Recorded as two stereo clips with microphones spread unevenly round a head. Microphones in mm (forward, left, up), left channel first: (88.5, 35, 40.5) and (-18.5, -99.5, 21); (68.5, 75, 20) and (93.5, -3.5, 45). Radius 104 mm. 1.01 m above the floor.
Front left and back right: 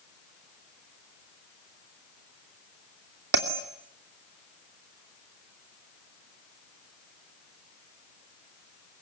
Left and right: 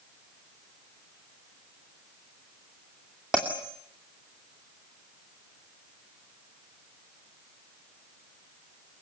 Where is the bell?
160° right, 2.5 m.